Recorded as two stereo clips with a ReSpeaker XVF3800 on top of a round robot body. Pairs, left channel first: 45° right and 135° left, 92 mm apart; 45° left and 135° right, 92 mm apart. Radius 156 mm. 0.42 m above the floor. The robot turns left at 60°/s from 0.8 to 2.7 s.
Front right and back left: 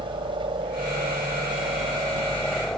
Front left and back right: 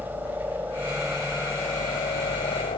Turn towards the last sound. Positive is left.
turn(degrees=40)